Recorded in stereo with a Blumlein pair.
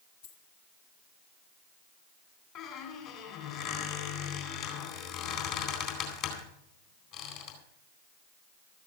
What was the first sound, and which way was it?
A dropped coin, 70° left.